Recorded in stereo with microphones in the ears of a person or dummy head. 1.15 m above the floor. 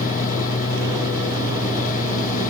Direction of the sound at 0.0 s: 40° left (ahead or behind).